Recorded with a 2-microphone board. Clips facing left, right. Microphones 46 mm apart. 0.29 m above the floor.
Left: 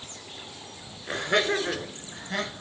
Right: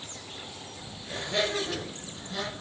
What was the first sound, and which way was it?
Laughter, 70° left (ahead or behind).